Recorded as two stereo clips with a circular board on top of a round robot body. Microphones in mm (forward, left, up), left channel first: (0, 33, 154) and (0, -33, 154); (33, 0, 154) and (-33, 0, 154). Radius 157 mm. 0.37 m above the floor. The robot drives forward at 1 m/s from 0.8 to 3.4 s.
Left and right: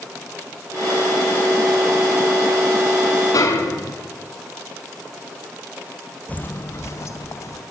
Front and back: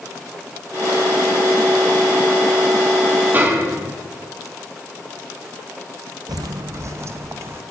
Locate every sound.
3.3 s a snare drum: 120° left, 4.5 m
6.3 s footsteps: 160° left, 0.6 m; by 7.6 s 130° left, 2 m